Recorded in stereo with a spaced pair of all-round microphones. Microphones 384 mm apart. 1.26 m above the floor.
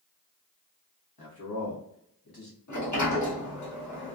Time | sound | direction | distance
1.2 | a man speaking | 70° left (ahead or behind) | 1.3 m
2.7 | a sliding door | 50° left (ahead or behind) | 1.1 m